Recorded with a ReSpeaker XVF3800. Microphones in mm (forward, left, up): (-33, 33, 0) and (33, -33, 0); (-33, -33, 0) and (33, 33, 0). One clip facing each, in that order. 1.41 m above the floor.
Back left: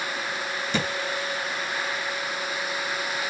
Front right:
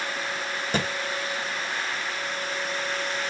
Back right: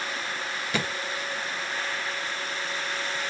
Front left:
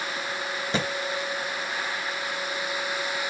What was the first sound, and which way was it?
A thud, 15° right.